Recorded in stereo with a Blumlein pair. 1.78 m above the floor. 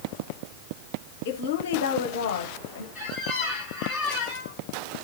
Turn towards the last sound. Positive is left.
turn(degrees=0)